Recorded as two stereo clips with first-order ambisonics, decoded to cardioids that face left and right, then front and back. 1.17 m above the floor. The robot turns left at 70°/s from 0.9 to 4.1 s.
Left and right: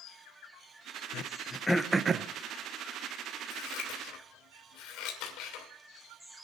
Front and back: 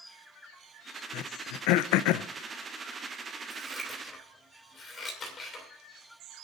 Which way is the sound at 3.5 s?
110° left.